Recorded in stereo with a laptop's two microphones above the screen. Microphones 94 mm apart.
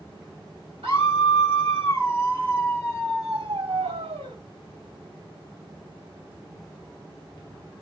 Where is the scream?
75° right (ahead or behind), 2.5 m.